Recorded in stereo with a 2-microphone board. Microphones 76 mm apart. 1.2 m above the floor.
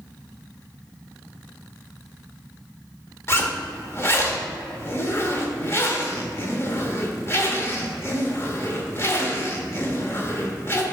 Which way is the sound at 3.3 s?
35° left (ahead or behind).